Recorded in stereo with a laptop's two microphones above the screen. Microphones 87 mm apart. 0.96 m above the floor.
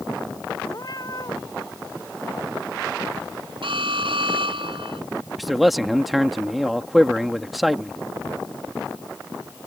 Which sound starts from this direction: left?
A cat meowing, at 0.7 s.